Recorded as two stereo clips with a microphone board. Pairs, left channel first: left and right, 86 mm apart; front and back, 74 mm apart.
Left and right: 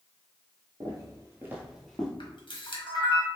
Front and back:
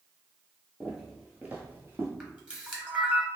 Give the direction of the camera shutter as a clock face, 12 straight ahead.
8 o'clock.